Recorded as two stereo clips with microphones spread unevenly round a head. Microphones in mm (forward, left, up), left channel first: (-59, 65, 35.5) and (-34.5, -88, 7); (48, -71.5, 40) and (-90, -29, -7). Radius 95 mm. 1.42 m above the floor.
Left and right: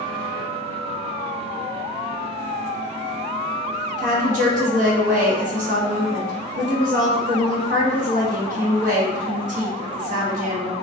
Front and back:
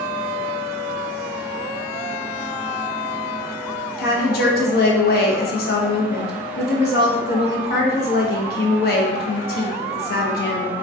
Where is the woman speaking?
35° right, 0.7 m.